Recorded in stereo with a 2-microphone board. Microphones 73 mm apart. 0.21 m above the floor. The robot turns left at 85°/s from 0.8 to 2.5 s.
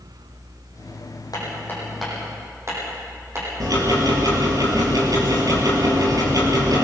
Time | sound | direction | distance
1.3 | hammering | 60° left (ahead or behind) | 9.5 m
3.6 | ticking | 55° right (ahead or behind) | 4.5 m